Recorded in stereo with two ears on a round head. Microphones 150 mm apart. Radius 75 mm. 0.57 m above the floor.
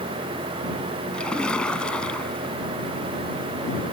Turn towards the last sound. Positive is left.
turn(degrees=5)  # may be behind; listen again after turning